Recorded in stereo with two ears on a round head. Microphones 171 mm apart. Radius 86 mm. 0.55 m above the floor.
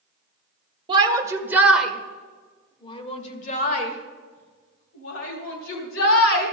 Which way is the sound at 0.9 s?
25° right (ahead or behind).